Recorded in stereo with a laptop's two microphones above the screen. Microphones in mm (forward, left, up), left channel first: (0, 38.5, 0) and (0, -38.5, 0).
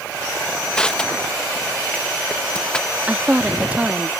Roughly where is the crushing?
Centre.